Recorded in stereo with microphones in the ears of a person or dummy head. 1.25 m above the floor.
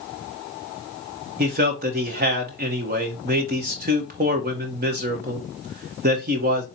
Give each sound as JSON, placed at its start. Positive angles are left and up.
{"t": 1.4, "sound": "a man speaking", "side_deg": -35, "distance_m": 0.9}